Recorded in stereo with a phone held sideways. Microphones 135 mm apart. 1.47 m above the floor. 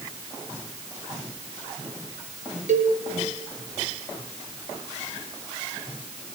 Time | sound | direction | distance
2.7 | a cowbell | 65° right (ahead or behind) | 5.5 m